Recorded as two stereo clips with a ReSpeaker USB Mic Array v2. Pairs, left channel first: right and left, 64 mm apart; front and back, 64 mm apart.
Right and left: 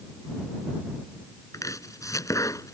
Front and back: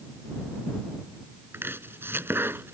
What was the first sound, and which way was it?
Chopping, 125° right.